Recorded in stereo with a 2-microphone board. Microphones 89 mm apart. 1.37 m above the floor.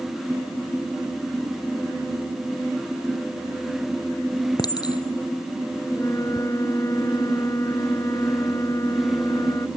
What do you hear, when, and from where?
4.6 s a clink: 50° left (ahead or behind)
5.9 s a flute: 35° left (ahead or behind)